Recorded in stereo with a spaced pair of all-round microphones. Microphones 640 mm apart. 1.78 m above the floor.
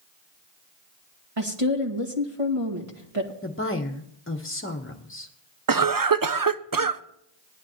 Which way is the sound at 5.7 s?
35° right (ahead or behind).